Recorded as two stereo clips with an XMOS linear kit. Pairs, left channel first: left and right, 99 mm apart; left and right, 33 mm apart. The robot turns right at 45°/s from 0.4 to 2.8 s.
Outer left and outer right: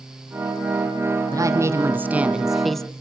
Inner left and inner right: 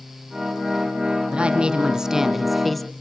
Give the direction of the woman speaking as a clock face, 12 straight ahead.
2 o'clock.